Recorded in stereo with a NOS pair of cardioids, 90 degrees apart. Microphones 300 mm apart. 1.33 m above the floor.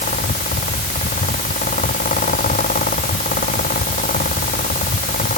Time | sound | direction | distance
0.0 | a fan | 25° left | ?